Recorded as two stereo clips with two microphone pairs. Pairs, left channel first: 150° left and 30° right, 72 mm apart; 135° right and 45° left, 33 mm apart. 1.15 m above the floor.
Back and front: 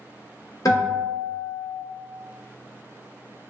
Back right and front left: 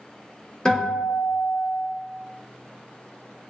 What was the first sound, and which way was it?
A guitar, 150° left.